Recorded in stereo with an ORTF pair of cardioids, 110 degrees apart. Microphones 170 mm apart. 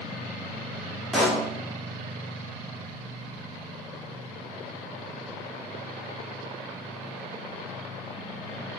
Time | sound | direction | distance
1.1 | a pop | straight ahead | 0.5 m